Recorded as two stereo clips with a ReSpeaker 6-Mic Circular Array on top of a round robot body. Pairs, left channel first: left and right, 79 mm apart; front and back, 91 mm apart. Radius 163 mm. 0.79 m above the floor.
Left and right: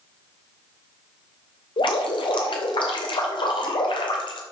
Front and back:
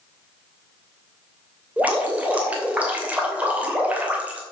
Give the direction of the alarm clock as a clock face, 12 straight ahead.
I don't hear an alarm clock.